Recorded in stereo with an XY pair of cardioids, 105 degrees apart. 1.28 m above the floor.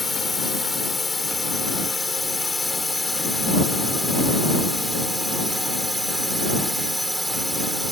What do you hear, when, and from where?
0.0 s a drone: 25° left; by 7.9 s 10° right